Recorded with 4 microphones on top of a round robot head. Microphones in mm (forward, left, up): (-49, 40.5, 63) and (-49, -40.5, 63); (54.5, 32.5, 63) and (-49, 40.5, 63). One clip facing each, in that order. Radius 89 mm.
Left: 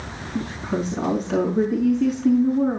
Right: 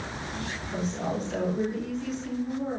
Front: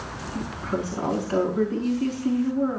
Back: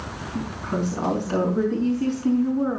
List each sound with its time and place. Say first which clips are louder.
0.3 s a woman speaking: left 9 dB, back 1 dB; 115° left, 5.5 m